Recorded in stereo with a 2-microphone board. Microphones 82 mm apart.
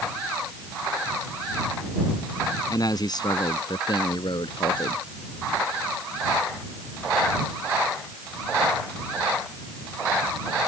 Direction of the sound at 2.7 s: 50° left (ahead or behind).